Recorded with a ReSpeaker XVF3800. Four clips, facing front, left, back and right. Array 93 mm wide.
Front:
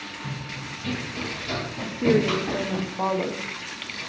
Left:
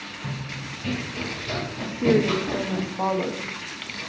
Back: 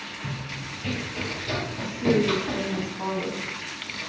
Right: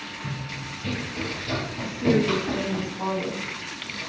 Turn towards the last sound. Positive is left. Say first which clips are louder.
# left 2 dB, front 2 dB
turn(degrees=45)